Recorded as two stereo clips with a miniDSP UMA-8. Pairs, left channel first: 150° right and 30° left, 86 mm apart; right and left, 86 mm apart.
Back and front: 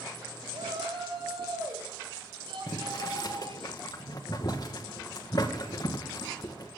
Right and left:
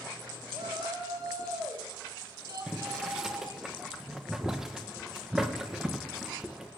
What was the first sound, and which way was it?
A shout, 45° left.